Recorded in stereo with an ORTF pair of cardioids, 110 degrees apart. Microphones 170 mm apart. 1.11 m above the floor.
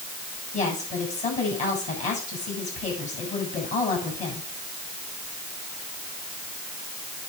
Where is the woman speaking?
45° left, 7.5 m.